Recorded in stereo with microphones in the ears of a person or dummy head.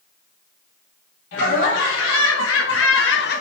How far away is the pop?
I don't hear a pop.